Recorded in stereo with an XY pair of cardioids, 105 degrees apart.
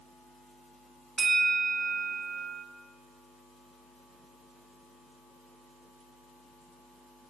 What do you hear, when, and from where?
1.2 s a bell: 45° right, 1.3 m